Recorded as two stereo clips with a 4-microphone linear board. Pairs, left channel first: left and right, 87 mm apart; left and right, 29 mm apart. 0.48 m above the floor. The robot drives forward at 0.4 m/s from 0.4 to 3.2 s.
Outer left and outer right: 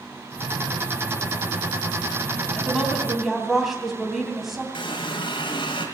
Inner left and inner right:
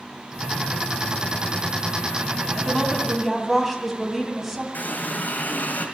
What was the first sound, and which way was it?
A woman speaking, 5° right (ahead or behind).